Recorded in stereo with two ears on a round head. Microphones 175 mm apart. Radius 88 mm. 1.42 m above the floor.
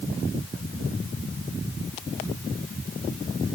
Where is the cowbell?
No cowbell in this recording.